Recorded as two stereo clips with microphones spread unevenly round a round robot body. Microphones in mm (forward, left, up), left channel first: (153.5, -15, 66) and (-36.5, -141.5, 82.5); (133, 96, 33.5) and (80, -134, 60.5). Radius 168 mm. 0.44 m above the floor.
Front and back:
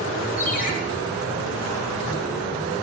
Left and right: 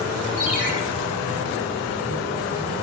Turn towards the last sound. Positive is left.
turn(degrees=-20)